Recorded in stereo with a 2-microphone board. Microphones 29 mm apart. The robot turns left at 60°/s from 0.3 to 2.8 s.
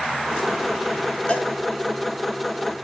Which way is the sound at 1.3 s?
35° left (ahead or behind).